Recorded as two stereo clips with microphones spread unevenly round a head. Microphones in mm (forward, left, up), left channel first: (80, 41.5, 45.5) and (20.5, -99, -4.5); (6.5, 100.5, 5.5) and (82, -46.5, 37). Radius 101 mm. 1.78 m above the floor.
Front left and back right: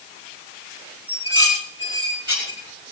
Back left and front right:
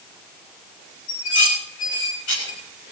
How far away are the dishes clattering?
About 8.5 m.